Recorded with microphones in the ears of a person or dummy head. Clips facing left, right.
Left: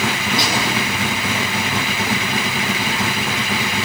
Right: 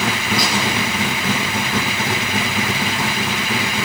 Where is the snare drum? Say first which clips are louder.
Even; 25° left (ahead or behind), 9 m.